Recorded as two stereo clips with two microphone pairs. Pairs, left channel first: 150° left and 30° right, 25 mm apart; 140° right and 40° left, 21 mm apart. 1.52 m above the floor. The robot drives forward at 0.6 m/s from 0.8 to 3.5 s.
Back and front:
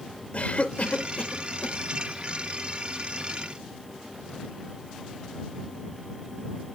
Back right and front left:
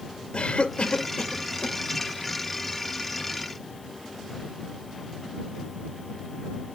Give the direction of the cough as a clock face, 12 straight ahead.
6 o'clock.